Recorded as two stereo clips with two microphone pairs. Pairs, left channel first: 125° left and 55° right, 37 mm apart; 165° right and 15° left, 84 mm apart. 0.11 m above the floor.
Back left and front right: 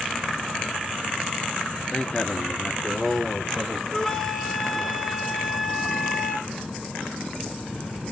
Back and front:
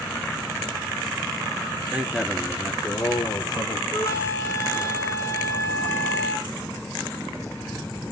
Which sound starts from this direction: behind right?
A flute, at 3.9 s.